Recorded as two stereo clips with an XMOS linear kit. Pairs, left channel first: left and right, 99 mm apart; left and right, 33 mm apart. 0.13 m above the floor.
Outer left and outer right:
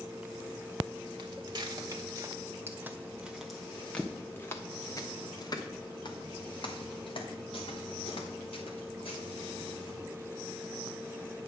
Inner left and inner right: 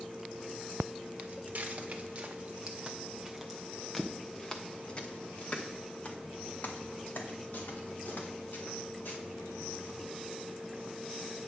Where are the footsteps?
50° right (ahead or behind), 1.7 m; by 10.0 s 70° left (ahead or behind), 3.5 m.